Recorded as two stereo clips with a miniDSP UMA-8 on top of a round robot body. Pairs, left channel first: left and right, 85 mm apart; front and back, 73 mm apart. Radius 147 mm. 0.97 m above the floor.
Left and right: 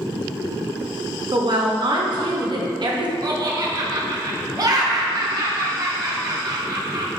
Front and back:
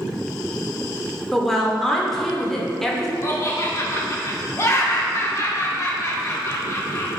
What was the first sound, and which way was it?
A woman speaking, 85° right.